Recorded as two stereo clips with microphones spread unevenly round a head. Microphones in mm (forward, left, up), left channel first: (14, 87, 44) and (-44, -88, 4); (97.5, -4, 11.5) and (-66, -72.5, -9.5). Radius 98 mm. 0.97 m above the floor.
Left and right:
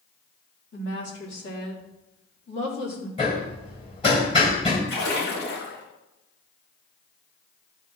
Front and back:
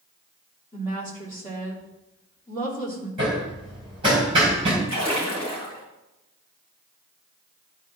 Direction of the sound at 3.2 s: 135° left.